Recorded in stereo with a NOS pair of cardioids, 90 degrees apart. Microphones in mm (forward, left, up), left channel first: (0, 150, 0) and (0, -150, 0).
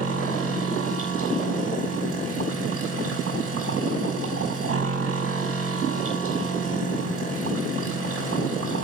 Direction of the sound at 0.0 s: 45° right.